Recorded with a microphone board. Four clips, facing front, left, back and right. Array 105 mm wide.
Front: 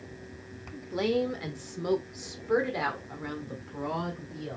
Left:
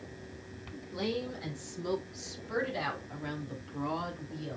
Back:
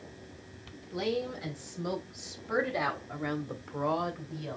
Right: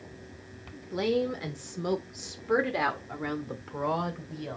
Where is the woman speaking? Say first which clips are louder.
Right 7 dB, front 5 dB; 40° right, 1.8 m; by 4.6 s 110° right, 2 m.